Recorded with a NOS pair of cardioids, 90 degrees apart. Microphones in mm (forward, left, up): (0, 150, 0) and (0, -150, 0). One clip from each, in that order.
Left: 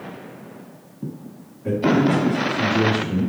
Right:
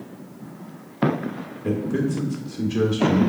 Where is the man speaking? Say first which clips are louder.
Left 6 dB; 40° right, 1.5 m.